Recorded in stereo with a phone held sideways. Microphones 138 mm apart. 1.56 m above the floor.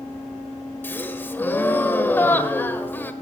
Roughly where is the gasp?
Centre.